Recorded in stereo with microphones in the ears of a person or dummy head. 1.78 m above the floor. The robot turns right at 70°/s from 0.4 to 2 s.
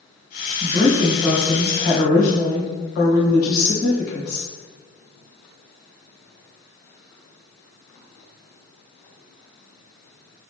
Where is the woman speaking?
45° right, 1.6 m; by 4.5 s 55° left, 1.6 m.